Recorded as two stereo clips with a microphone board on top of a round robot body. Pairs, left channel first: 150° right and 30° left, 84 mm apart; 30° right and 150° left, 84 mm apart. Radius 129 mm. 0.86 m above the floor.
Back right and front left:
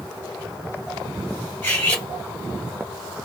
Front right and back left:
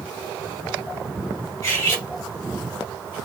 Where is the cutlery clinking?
80° right, 2.5 m.